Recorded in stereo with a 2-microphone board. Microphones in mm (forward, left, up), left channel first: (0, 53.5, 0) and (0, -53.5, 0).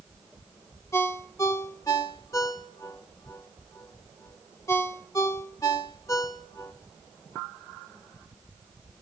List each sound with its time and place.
0.9 s a ringtone: 30° left (ahead or behind), 1.4 m